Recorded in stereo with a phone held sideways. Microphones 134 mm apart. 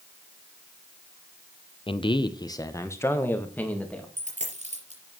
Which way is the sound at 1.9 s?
40° left (ahead or behind).